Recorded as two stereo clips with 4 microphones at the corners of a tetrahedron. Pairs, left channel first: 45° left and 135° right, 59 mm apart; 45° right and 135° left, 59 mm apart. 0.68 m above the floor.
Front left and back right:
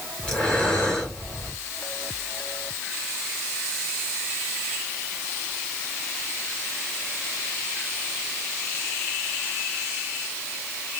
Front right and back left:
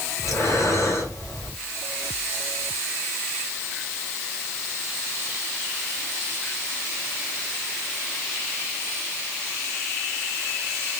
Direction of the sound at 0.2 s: 35° right.